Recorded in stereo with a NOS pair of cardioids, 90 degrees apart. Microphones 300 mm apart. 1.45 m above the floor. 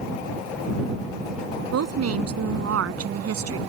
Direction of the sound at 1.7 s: 55° right.